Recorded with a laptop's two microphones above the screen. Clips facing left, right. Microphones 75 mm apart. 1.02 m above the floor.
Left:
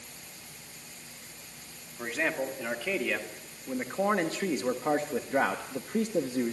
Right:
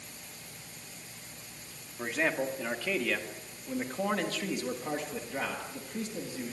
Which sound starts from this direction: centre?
A man speaking, at 2.0 s.